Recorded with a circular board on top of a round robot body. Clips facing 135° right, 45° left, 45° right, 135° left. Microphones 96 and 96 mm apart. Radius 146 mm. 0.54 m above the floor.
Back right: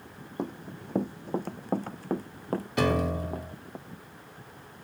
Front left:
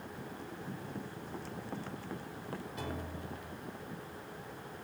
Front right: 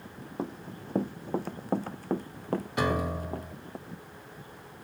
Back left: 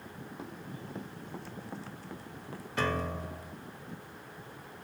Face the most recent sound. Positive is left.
turn(degrees=-125)